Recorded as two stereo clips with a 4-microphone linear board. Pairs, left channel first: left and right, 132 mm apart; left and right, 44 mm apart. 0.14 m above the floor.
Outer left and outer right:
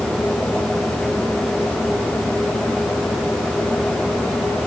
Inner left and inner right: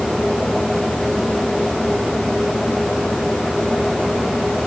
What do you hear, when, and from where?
Only background noise.